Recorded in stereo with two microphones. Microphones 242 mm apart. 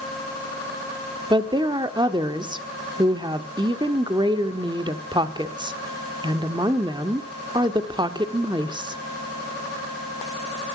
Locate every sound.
1.3 s a woman speaking: 20° right (ahead or behind), 0.8 m